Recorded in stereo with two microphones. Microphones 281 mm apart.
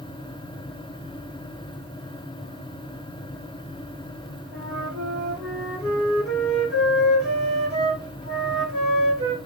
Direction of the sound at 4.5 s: 55° right (ahead or behind).